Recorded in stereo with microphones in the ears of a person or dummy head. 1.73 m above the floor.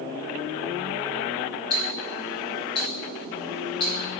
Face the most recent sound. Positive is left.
turn(degrees=25)  # may be behind; listen again after turning